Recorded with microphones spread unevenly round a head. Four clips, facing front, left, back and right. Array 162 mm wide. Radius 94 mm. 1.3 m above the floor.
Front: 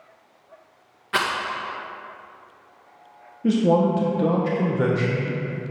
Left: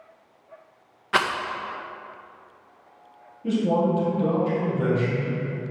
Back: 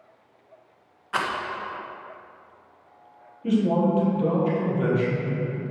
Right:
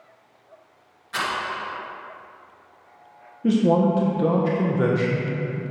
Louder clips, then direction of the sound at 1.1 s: Left 5 dB, front 3 dB; 60° left.